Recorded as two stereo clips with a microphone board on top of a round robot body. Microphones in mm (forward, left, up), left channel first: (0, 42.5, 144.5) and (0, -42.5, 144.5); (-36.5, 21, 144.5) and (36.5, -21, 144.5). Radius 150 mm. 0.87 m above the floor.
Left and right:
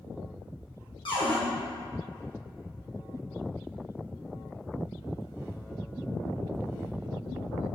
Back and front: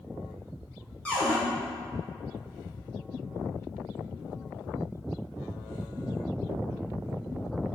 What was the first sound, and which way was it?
A cupboard door, 75° left.